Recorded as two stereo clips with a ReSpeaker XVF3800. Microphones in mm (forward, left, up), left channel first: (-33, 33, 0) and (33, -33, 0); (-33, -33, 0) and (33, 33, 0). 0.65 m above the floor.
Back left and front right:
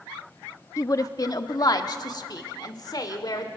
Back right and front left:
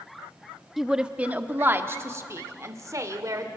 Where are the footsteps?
I don't hear footsteps.